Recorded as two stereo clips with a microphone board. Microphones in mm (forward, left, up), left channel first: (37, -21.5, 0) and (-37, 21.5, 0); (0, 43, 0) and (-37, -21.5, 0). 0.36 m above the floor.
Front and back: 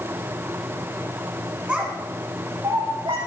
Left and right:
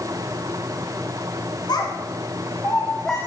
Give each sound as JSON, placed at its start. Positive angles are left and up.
{"t": 1.7, "sound": "a child speaking", "azimuth_deg": 70, "distance_m": 2.0}